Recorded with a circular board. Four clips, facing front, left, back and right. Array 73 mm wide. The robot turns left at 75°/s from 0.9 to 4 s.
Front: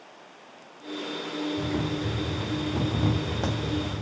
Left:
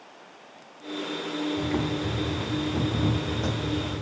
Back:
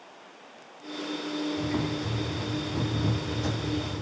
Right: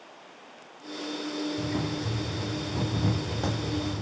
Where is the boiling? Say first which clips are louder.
Left 3 dB, front 1 dB; 125° left, 3 m; by 4.0 s 60° right, 3 m.